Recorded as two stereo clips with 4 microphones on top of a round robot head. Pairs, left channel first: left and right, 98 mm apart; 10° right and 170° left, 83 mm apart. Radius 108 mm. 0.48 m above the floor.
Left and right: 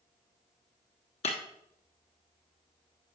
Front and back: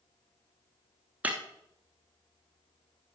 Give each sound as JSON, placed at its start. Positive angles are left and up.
{"t": 1.2, "sound": "breaking glass", "azimuth_deg": 95, "distance_m": 1.2}